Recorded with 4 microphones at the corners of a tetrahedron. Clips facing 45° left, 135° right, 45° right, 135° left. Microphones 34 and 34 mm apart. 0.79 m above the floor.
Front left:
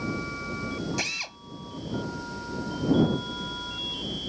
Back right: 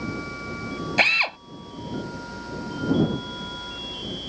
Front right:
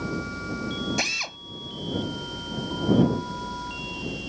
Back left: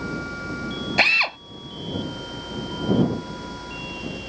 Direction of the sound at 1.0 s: Straight behind.